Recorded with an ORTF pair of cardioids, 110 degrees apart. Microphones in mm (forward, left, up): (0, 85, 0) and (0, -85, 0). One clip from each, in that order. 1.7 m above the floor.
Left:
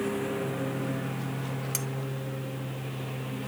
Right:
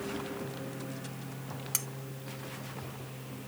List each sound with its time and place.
0.0 s a lawn mower: 50° left; by 3.5 s 55° left
1.7 s cutlery clinking: 10° right